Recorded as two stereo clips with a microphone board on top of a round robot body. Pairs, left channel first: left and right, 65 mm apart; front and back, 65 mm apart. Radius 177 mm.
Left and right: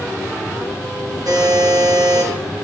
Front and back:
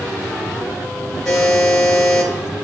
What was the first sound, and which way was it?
A buzzer, 80° right.